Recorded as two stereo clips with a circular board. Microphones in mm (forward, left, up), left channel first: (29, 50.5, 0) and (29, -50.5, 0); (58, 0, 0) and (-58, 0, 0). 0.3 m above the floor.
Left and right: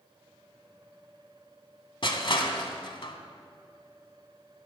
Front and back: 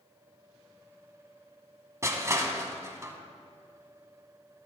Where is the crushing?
115° left, 1.0 m.